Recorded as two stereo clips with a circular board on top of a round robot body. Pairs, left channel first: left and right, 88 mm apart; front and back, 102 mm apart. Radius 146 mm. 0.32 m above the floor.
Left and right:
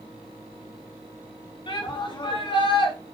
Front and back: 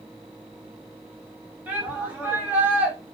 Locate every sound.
1.7 s a shout: 105° left, 4 m